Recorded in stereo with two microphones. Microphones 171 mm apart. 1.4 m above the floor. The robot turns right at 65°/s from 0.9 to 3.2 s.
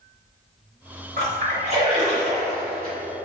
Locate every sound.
1.2 s a splash: 75° right (ahead or behind), 1.6 m; by 3.0 s 40° left (ahead or behind), 1.6 m